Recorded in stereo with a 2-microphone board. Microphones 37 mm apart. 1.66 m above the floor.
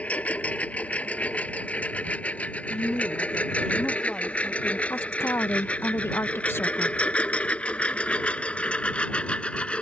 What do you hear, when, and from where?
0.0 s a lawn mower: 35° left (ahead or behind); by 9.8 s 30° left (ahead or behind)
2.7 s a woman speaking: 20° left (ahead or behind)
4.9 s a woman speaking: 80° left